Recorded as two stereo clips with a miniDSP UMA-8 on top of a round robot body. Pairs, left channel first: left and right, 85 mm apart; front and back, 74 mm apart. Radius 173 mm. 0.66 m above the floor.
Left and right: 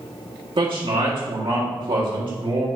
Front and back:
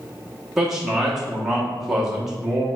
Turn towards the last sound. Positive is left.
turn(degrees=-95)